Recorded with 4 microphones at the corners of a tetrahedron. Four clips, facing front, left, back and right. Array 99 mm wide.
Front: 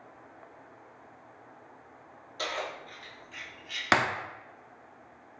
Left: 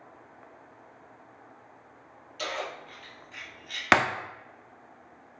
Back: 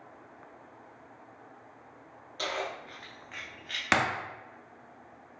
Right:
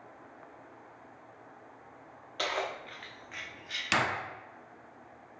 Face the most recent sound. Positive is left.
turn(degrees=75)